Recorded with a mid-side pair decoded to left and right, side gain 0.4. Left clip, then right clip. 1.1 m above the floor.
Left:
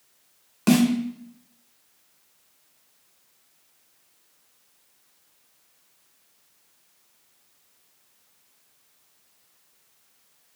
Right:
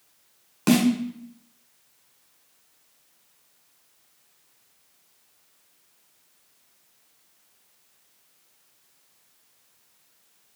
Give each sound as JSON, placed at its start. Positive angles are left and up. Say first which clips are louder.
{"t": 0.7, "sound": "a snare drum", "louder": "even", "azimuth_deg": -10, "distance_m": 1.9}